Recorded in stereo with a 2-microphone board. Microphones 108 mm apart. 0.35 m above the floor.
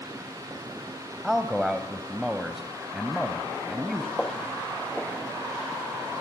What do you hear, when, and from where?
1.2 s a man speaking: 5° right (ahead or behind), 1.5 m
4.2 s footsteps: 5° left (ahead or behind), 3 m; by 5.8 s 25° left (ahead or behind), 2.5 m